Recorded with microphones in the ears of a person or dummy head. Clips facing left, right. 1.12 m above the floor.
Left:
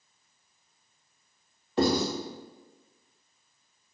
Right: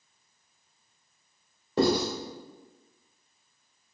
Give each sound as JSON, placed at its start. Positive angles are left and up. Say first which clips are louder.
{"t": 1.8, "sound": "writing", "louder": "right 1 dB", "side_deg": -40, "distance_m": 1.7}